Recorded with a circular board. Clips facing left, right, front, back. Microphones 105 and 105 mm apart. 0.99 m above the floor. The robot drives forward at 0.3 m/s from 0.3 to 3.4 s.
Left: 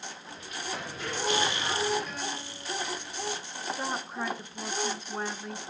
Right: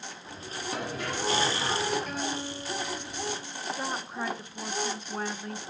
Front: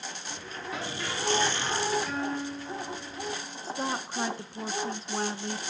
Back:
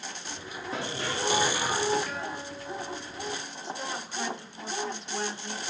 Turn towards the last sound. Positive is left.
turn(degrees=0)